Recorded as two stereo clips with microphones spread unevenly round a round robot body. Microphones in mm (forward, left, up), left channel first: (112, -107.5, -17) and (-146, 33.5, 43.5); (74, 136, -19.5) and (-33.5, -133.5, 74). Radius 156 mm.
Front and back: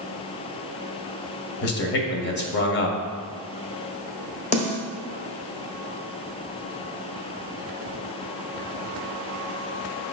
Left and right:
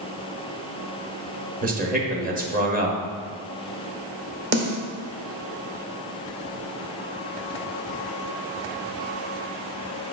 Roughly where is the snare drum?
Ahead right.